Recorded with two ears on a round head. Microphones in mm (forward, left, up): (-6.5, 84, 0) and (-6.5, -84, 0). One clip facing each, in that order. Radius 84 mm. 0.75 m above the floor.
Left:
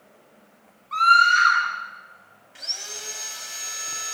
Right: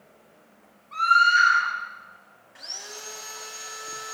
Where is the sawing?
35° left (ahead or behind), 2.5 m.